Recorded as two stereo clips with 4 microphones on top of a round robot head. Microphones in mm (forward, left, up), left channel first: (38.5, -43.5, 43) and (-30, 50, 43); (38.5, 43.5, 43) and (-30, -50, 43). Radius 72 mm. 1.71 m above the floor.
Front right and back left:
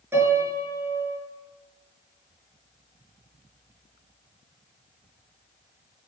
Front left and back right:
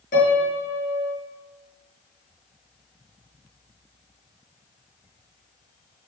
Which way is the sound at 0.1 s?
55° left.